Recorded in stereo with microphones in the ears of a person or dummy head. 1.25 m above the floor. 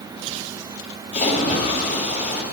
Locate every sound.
1.1 s a splash: 45° left (ahead or behind), 2.0 m